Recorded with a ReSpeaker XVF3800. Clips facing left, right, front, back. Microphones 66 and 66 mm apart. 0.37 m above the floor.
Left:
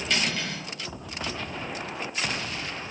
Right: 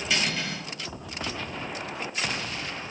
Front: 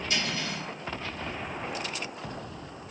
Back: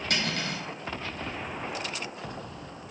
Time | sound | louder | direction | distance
0.1 | cutlery clinking | even, back 2 dB | 170° right | 1.2 m